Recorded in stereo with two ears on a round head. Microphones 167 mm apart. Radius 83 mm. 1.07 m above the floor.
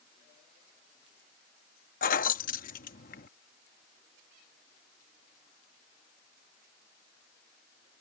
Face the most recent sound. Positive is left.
turn(degrees=45)  # may be behind; listen again after turning